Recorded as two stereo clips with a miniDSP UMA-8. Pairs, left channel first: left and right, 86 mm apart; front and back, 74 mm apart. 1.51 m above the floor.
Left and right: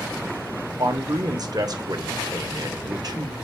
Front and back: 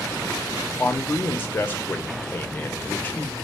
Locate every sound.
0.8 s a man speaking: 60° right, 0.8 m